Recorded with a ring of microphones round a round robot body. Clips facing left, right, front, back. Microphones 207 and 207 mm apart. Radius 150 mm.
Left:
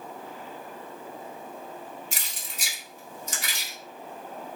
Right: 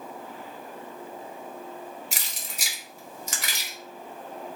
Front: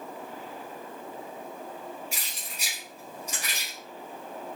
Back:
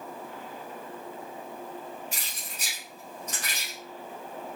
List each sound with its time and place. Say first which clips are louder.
2.1 s keys jangling: right 1 dB, even; 80° right, 1.5 m